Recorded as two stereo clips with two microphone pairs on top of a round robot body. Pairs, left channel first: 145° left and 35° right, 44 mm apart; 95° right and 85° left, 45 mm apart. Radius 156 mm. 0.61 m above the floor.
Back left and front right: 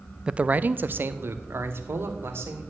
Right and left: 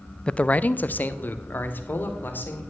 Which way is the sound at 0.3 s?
95° right.